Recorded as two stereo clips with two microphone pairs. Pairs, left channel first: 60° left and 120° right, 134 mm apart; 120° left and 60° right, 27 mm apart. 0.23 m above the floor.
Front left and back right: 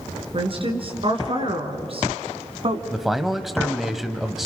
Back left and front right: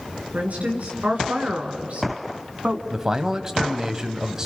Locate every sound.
0.3 s a woman speaking: 80° right, 3.5 m; by 2.8 s 100° right, 1.8 m
2.9 s a man speaking: 40° right, 1.0 m